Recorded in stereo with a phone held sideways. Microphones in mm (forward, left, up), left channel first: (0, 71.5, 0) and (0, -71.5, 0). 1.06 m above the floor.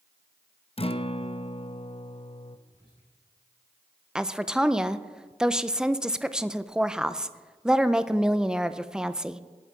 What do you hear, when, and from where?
0.8 s a guitar: 40° left (ahead or behind), 0.6 m
2.7 s whispering: 35° left (ahead or behind), 7 m
4.2 s a woman speaking: 5° right (ahead or behind), 0.5 m